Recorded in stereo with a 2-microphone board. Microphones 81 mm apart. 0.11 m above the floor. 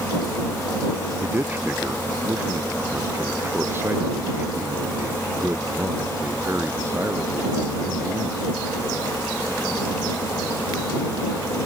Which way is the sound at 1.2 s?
25° right (ahead or behind).